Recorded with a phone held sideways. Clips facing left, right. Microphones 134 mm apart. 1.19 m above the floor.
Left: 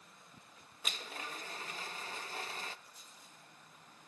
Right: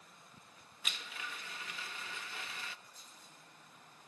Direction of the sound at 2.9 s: 5° left (ahead or behind).